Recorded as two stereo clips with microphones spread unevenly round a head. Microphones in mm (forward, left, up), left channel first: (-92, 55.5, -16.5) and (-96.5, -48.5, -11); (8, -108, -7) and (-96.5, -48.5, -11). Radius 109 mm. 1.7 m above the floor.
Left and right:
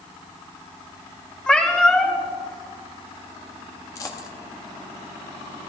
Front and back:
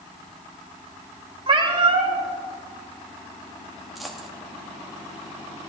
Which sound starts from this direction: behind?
A cat meowing, at 1.5 s.